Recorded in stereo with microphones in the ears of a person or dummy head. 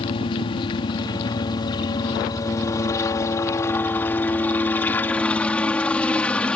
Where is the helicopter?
30° left (ahead or behind); by 6.5 s 10° left (ahead or behind).